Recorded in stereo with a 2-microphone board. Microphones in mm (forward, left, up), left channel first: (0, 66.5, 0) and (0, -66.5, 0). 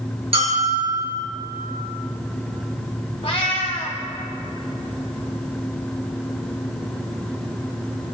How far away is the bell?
About 4.5 m.